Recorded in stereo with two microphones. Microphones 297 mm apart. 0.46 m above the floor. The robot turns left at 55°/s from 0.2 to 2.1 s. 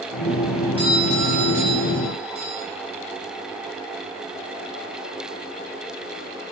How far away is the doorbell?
About 5.5 m.